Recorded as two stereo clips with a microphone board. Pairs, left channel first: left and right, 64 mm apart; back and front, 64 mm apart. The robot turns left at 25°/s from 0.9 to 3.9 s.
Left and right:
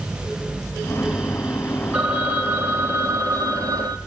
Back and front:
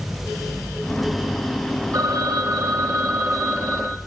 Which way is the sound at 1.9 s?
15° right.